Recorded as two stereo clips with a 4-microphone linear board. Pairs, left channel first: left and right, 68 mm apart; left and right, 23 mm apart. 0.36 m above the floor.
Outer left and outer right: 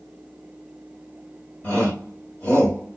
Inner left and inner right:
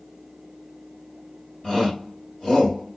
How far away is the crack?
I don't hear a crack.